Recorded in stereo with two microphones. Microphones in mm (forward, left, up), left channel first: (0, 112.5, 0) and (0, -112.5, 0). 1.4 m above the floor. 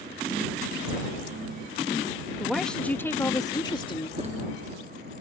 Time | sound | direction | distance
2.4 | a woman speaking | 5° right (ahead or behind) | ?
4.2 | a zipper | 30° right (ahead or behind) | ?